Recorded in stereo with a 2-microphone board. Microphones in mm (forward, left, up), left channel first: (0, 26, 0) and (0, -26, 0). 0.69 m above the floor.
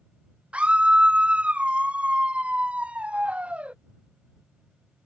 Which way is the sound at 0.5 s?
25° right (ahead or behind).